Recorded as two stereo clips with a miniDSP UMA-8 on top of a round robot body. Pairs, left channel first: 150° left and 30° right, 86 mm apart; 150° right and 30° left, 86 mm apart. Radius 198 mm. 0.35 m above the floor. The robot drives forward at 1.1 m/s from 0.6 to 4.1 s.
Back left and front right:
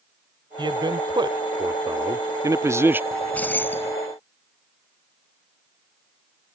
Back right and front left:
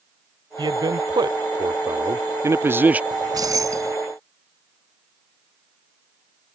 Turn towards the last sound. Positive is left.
turn(degrees=90)